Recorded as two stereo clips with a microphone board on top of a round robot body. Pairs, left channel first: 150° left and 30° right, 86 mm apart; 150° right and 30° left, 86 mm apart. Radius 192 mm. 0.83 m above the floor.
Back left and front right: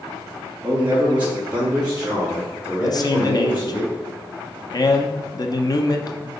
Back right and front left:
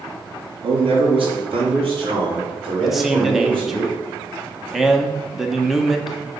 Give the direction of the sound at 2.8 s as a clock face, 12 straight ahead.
8 o'clock.